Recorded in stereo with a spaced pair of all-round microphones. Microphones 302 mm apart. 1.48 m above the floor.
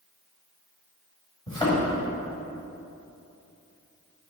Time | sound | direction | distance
1.5 | a thud | 15° left (ahead or behind) | 2 m